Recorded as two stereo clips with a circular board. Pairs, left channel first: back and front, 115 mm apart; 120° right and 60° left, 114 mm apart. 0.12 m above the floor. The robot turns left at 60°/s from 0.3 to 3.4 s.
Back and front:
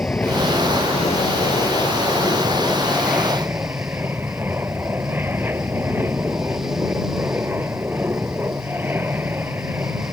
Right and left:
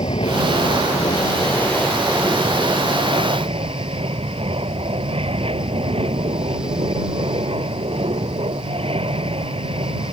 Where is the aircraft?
105° right; by 10.1 s 70° left.